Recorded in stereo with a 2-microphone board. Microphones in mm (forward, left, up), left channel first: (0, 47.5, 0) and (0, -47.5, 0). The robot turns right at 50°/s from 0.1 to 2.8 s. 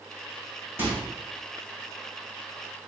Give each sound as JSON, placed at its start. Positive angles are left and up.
{"t": 0.8, "sound": "a microwave", "side_deg": -25, "distance_m": 2.0}